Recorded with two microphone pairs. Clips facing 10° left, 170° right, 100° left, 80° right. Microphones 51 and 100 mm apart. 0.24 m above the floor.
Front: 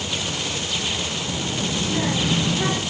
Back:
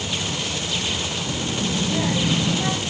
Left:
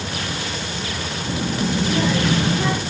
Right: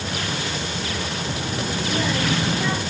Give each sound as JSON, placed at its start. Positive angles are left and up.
{"t": 1.2, "sound": "a child speaking", "azimuth_deg": 105, "distance_m": 2.0}